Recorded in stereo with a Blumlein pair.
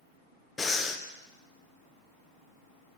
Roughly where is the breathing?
Ahead.